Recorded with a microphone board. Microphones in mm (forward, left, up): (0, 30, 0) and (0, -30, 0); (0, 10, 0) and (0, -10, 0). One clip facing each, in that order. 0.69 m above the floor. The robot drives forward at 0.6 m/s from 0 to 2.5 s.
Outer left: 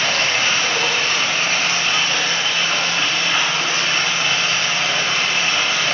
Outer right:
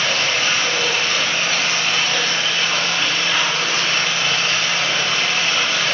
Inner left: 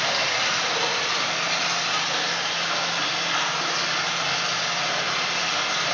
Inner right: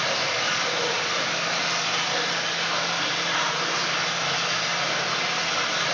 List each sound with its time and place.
0.0 s running water: 55° left (ahead or behind), 0.9 m; by 5.9 s 30° left (ahead or behind), 1.6 m